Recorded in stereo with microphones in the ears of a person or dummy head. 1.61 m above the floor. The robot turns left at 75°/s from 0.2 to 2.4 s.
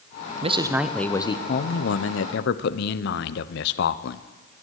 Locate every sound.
0.4 s a man speaking: 140° right, 0.9 m; by 4.2 s 70° left, 0.9 m